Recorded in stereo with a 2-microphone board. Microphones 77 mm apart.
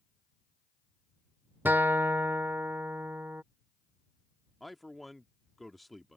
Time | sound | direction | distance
1.6 | a guitar | 25° right (ahead or behind) | ?
4.6 | a man speaking | centre (ahead or behind) | ?